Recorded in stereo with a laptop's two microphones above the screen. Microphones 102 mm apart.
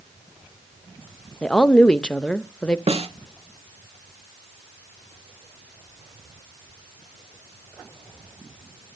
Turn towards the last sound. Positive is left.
turn(degrees=-85)